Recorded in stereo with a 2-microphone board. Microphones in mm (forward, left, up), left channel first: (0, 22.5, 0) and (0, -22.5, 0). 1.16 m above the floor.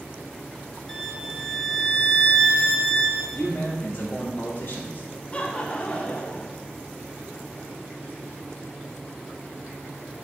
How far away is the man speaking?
About 2 m.